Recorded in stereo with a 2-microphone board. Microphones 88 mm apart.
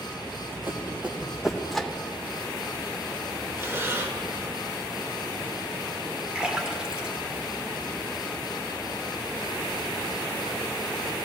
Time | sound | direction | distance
0.3 | running footsteps | 30° right (ahead or behind) | 2 m
1.7 | a microwave | centre (ahead or behind) | 0.7 m
3.6 | breathing | 30° right (ahead or behind) | 0.9 m
6.3 | a splash | 10° right (ahead or behind) | 1.2 m